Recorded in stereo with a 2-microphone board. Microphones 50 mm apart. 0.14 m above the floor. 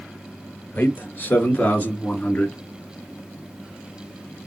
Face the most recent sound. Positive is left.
turn(degrees=20)  # may be behind; listen again after turning